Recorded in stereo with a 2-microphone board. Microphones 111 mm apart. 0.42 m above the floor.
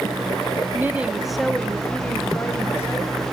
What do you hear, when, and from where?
0.7 s a woman speaking: 20° right (ahead or behind), 1.3 m; by 3.2 s 25° left (ahead or behind), 3.5 m